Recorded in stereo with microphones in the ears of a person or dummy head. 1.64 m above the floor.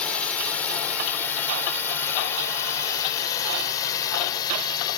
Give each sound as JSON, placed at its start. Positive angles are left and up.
{"t": 0.0, "sound": "a drone", "side_deg": 0}